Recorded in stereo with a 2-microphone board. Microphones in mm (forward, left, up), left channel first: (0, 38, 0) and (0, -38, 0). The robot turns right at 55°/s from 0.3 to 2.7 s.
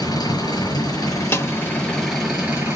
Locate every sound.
0.0 s an engine running: 85° left, 6.5 m; by 2.8 s 145° right, 6.5 m
1.3 s a snare drum: 35° left (ahead or behind), 1.2 m